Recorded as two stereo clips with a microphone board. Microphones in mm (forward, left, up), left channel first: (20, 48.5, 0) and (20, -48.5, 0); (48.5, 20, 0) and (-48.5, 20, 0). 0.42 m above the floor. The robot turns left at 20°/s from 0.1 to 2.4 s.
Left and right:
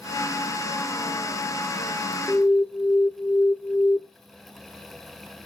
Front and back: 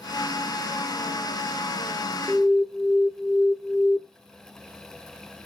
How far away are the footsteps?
No footsteps in this recording.